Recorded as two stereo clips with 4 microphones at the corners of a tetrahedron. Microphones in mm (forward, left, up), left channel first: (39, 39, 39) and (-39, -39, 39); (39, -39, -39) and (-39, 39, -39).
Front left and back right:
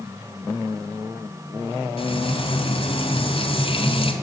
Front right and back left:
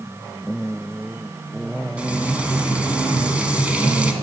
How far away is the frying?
About 2 m.